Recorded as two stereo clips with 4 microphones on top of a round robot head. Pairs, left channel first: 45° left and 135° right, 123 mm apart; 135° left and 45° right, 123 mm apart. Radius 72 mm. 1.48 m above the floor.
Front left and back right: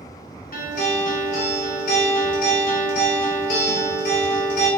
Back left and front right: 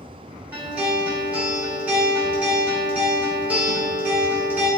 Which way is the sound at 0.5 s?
35° left.